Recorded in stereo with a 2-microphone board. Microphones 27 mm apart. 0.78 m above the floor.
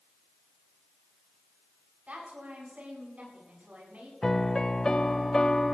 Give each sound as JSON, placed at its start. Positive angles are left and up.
{"t": 2.1, "sound": "a woman speaking", "side_deg": -65, "distance_m": 8.0}
{"t": 4.2, "sound": "a piano", "side_deg": 25, "distance_m": 0.8}